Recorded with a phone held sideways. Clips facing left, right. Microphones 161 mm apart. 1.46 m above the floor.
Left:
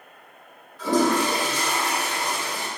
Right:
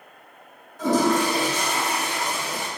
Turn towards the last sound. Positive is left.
turn(degrees=-50)  # may be behind; listen again after turning